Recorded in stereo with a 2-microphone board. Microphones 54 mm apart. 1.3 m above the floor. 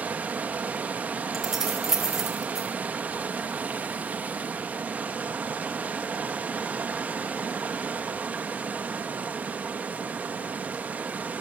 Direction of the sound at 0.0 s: 30° right (ahead or behind).